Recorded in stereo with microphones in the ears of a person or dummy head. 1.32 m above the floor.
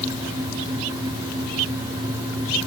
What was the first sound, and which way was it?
Only background noise.